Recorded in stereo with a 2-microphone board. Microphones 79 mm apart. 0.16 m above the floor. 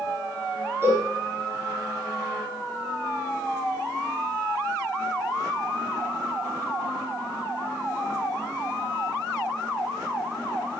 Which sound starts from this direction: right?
A cowbell, at 0.8 s.